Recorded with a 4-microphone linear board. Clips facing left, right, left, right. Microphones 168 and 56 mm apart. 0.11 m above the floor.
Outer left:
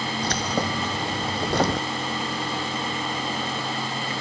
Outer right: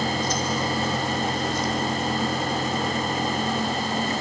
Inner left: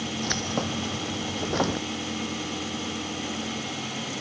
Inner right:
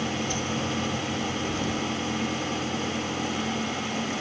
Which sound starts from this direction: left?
Keys jangling, at 0.2 s.